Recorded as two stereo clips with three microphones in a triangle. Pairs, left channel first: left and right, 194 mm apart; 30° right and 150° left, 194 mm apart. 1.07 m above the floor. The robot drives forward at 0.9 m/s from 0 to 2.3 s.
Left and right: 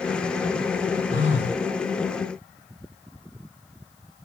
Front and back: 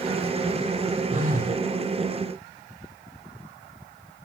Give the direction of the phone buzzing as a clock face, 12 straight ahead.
9 o'clock.